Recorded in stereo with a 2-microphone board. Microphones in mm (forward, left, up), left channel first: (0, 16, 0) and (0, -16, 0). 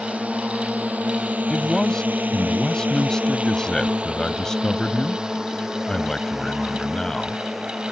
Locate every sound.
0.0 s a drone: 50° right (ahead or behind); by 7.9 s 5° right (ahead or behind)
1.5 s a man speaking: 20° left (ahead or behind)